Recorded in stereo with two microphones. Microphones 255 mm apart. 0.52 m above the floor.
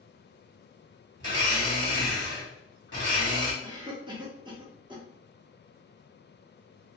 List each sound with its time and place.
1.2 s a blender: 45° left (ahead or behind), 1.6 m
3.6 s a cough: 20° right (ahead or behind), 0.7 m